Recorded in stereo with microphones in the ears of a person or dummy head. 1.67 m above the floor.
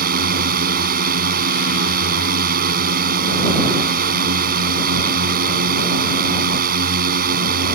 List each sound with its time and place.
0.0 s a drone: 50° right (ahead or behind)